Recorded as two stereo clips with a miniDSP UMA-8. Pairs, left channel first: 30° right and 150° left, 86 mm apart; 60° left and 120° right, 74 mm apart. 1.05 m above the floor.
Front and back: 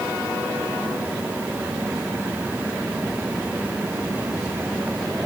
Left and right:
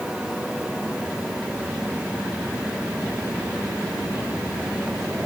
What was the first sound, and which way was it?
Only background noise.